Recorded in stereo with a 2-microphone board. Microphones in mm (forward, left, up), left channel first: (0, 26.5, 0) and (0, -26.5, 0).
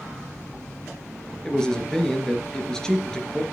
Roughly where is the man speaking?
Centre.